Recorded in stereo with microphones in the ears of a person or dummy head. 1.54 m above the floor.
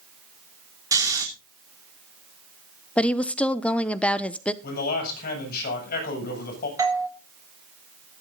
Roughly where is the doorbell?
Centre.